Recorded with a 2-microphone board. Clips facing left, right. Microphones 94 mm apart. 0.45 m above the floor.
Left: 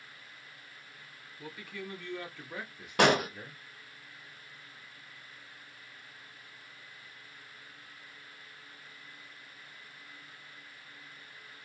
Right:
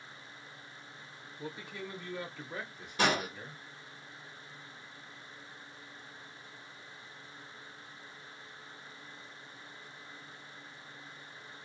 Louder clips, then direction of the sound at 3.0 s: Left 5 dB; 70° left (ahead or behind).